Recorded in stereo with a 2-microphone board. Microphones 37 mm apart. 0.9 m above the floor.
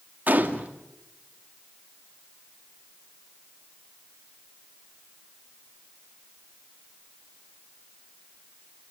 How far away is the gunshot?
About 2.5 m.